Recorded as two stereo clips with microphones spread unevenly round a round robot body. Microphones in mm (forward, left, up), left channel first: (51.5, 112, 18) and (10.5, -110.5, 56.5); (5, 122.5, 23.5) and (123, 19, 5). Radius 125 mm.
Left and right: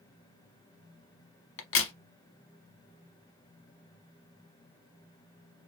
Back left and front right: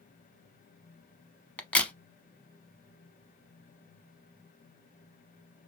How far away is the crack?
About 0.9 m.